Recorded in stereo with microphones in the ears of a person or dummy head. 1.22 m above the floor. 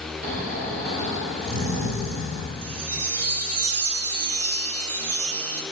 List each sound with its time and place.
0.2 s snoring: 65° right (ahead or behind), 3.5 m
2.6 s a chime: 75° right (ahead or behind), 0.8 m